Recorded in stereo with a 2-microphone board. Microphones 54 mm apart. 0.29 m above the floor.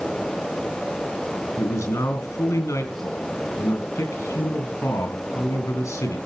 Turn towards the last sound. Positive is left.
turn(degrees=75)  # may be behind; listen again after turning